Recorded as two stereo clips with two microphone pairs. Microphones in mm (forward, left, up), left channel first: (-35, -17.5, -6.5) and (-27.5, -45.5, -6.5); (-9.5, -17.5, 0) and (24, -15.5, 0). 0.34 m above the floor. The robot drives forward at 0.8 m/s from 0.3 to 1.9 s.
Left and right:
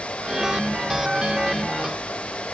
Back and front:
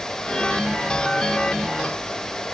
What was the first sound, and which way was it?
Only background noise.